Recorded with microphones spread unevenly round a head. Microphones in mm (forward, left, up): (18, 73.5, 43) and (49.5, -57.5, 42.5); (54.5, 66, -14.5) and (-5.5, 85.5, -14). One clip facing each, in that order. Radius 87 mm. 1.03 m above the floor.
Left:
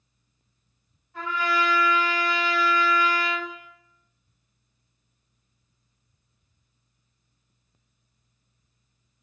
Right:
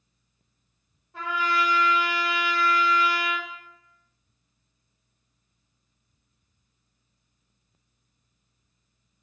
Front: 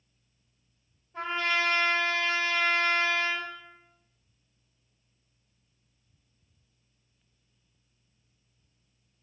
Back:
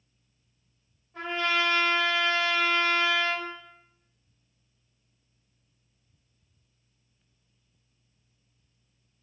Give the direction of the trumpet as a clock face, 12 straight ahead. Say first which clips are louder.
Left 1 dB, back 1 dB; 4 o'clock.